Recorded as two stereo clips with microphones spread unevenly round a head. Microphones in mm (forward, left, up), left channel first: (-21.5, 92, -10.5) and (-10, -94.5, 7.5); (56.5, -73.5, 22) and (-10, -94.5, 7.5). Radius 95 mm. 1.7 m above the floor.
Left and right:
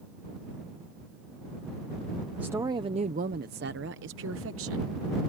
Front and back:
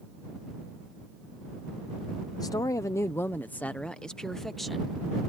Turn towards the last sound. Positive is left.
turn(degrees=-75)